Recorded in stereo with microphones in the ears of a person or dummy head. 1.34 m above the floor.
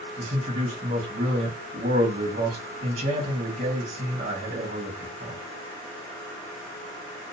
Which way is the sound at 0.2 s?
40° right (ahead or behind).